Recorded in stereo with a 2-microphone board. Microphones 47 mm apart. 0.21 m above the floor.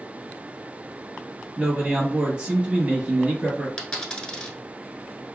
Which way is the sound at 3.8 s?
15° left (ahead or behind).